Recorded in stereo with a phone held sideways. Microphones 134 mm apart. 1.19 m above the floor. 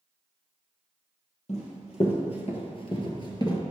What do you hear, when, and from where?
1.5 s running footsteps: 55° left (ahead or behind), 2 m; by 3.6 s 30° left (ahead or behind), 1.3 m